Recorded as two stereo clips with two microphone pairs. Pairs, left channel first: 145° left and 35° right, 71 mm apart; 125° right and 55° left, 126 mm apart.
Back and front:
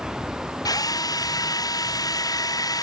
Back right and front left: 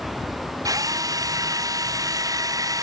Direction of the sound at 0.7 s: 115° left.